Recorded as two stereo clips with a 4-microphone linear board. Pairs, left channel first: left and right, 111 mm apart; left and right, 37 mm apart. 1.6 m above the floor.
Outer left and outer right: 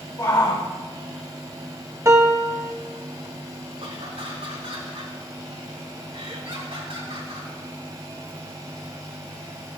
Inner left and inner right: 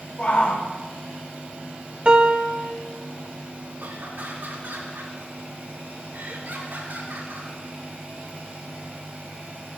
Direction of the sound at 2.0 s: 30° right (ahead or behind).